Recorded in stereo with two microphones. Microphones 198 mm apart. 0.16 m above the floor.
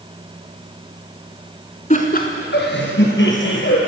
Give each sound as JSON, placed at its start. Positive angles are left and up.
{"t": 1.9, "sound": "laughter", "side_deg": 35, "distance_m": 1.2}